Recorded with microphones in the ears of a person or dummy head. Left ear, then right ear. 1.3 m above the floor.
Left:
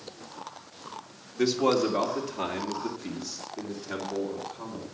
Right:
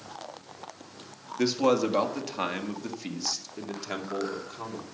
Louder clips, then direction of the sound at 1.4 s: Even; 10° right (ahead or behind).